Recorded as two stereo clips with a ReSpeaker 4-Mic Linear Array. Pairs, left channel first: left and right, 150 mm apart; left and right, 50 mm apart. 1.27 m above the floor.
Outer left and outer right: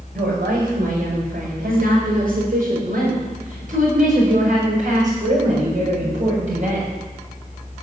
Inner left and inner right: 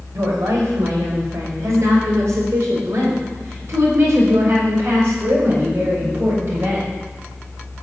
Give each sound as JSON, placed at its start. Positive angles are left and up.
{"t": 0.1, "sound": "a woman speaking", "side_deg": -80, "distance_m": 6.5}